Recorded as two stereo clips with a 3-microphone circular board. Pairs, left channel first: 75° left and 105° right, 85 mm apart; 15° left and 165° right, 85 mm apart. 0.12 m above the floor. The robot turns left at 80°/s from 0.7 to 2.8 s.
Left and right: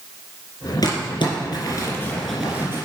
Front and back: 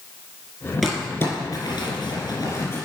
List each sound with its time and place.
0.8 s crumpling: 100° left, 3 m; by 2.9 s 55° right, 3 m